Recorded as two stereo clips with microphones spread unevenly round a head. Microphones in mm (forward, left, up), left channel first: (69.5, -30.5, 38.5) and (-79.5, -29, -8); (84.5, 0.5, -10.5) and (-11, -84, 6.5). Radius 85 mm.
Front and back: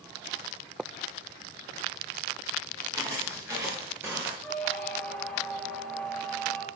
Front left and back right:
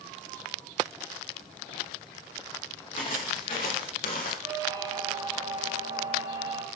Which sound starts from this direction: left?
Footsteps, at 2.9 s.